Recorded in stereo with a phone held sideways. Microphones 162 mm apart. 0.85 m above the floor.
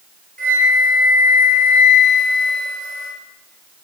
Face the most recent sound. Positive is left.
turn(degrees=-70)  # may be behind; listen again after turning